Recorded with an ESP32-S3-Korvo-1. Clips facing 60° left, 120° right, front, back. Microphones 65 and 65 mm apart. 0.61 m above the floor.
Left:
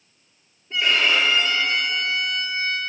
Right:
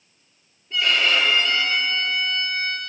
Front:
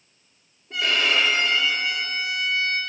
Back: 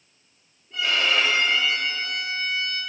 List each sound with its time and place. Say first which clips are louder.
0.7 s a violin: even, front 1 dB; 5° right, 8 m